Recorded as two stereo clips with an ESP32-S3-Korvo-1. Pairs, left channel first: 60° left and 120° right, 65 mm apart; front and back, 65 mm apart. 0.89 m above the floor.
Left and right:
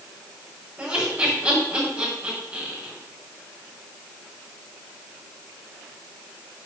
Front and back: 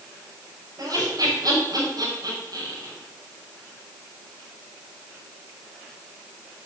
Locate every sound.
0.8 s laughter: 175° left, 5.5 m